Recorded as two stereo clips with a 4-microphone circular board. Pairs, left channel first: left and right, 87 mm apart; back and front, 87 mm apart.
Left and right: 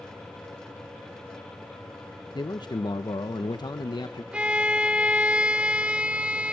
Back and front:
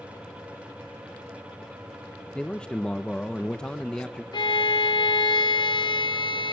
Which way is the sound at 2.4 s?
100° left.